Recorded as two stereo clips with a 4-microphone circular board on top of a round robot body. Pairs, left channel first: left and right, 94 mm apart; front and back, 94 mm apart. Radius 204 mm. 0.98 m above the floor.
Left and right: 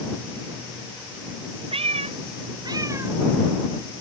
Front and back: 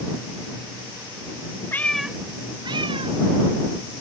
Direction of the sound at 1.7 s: 70° right.